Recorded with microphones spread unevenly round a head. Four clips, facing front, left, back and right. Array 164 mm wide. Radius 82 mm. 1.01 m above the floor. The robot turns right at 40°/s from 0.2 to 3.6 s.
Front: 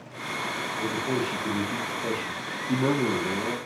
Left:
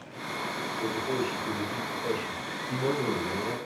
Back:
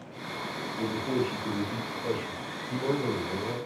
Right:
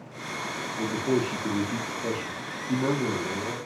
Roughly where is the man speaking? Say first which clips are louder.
Right 5 dB, even; right.